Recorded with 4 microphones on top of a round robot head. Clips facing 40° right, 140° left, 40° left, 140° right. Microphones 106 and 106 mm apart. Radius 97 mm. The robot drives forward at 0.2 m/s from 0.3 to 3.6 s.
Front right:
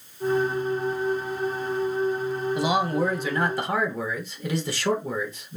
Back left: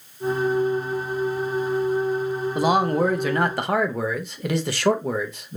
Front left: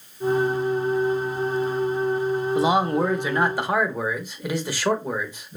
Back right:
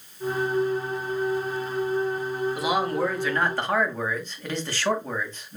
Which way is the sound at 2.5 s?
100° left.